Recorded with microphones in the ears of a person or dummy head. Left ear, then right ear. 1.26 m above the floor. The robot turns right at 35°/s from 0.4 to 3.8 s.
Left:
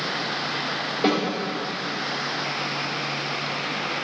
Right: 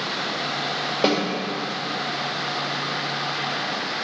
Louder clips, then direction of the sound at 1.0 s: Right 1 dB; 35° right (ahead or behind).